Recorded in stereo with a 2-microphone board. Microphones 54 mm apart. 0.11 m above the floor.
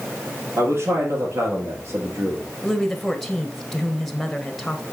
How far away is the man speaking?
About 3.5 m.